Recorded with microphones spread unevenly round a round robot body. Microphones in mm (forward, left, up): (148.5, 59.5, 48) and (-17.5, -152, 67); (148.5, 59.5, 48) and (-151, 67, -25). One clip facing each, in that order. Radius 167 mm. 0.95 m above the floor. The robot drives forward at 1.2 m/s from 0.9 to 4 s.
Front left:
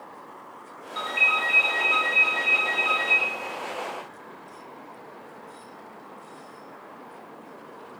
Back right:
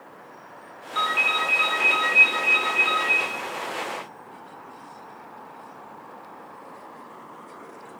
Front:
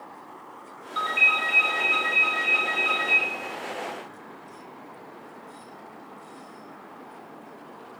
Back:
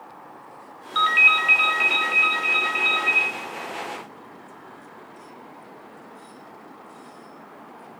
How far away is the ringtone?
About 0.9 m.